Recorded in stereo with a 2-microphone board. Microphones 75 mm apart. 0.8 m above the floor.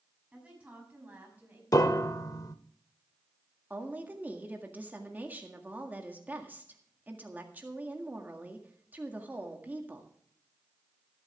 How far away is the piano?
About 0.8 m.